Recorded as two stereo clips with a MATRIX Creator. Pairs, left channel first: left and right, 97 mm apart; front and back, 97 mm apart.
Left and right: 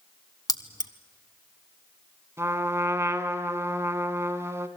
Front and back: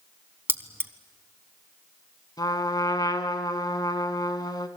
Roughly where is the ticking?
No ticking in this recording.